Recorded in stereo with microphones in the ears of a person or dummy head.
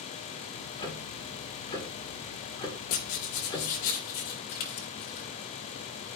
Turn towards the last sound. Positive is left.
turn(degrees=50)  # may be behind; listen again after turning